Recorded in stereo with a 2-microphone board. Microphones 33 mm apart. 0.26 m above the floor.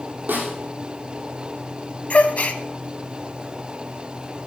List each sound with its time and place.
0.3 s a snare drum: 60° right (ahead or behind), 4 m
2.1 s a gasp: 45° left (ahead or behind), 0.7 m